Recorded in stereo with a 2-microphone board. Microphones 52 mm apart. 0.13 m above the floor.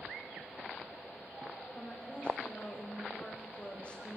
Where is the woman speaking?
25° left (ahead or behind), 8 m.